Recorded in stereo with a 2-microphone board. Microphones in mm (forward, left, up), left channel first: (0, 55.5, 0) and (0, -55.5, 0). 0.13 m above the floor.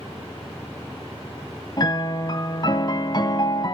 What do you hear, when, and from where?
1.8 s a piano: 40° left (ahead or behind), 0.7 m